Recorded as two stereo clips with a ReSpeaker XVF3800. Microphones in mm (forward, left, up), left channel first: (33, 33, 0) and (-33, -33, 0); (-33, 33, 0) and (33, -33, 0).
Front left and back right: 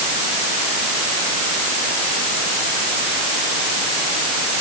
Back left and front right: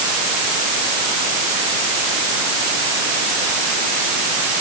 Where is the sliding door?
I don't hear a sliding door.